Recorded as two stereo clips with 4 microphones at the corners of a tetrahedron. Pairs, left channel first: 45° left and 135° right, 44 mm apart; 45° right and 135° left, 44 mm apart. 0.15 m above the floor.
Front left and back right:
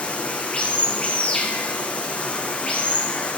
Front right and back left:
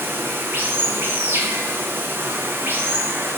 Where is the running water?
105° left, 1.7 m.